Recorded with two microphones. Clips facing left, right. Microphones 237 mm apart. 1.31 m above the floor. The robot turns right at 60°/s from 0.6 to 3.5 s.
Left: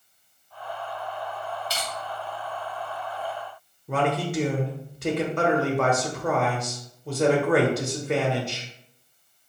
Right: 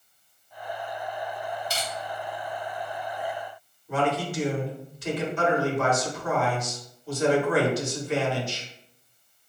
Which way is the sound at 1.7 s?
55° right (ahead or behind).